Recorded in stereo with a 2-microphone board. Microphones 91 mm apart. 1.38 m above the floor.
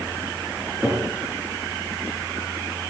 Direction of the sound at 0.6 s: 5° right (ahead or behind).